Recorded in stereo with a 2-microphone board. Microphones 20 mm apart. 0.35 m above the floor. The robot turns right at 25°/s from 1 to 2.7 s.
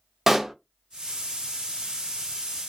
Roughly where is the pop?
Centre.